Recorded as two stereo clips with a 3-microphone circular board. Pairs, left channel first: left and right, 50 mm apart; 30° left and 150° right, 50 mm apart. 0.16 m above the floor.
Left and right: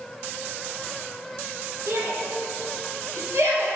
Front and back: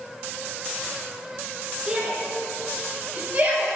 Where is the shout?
90° right, 1.7 m; by 3.7 s 105° right, 2.5 m.